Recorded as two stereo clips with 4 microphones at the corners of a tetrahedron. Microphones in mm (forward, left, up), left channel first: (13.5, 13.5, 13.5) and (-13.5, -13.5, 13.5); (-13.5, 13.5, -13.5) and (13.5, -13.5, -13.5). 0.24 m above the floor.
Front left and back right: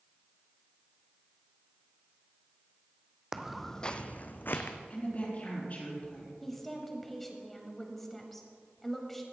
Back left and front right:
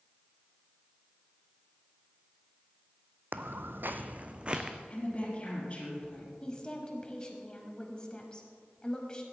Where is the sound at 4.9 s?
85° left, 4 m.